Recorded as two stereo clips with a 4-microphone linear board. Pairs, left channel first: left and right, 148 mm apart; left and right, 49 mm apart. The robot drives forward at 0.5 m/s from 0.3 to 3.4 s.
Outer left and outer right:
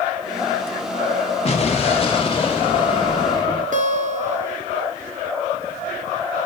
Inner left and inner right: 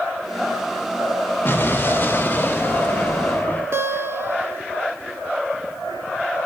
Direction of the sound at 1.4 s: 45° left (ahead or behind).